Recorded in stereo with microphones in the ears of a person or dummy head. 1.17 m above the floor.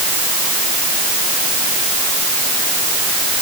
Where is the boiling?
I don't hear boiling.